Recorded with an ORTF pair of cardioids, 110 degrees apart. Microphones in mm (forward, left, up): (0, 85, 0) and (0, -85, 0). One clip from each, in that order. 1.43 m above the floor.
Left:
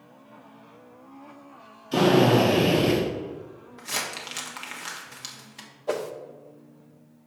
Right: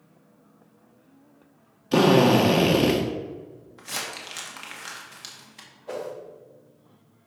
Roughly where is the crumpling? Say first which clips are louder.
Left 2 dB; ahead.